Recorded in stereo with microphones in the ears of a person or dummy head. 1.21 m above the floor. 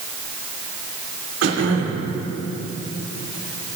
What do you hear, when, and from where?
1.4 s throat clearing: 80° right, 3 m